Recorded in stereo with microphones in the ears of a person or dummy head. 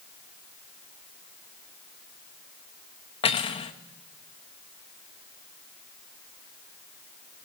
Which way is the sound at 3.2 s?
25° left (ahead or behind).